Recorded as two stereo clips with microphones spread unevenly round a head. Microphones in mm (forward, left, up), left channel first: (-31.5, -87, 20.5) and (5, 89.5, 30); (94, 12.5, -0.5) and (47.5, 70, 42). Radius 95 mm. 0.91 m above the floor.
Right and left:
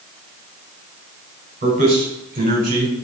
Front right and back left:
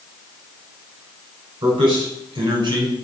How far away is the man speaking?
About 4 m.